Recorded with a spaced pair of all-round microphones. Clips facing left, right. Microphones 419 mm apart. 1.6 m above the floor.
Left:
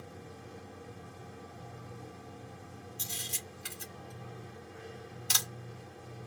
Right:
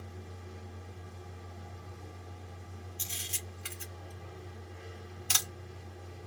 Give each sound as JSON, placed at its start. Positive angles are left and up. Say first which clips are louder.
{"t": 0.0, "sound": "a machine running", "louder": "left 1 dB", "side_deg": 75, "distance_m": 2.0}
{"t": 3.0, "sound": "a camera shutter", "louder": "left 1 dB", "side_deg": 60, "distance_m": 2.0}